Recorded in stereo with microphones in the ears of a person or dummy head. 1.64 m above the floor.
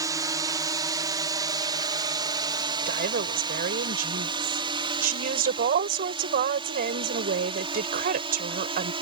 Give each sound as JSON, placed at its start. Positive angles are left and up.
{"t": 0.0, "sound": "a drone", "side_deg": -20}
{"t": 2.9, "sound": "a woman speaking", "side_deg": -45}